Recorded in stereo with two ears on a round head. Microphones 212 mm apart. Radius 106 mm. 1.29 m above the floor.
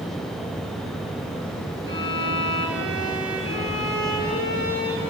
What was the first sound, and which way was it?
A violin, 55° right (ahead or behind).